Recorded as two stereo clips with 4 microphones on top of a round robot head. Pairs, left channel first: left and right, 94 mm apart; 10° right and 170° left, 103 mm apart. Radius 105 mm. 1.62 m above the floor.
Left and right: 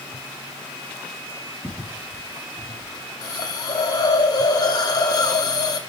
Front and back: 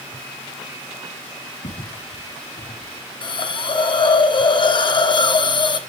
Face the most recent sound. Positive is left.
turn(degrees=35)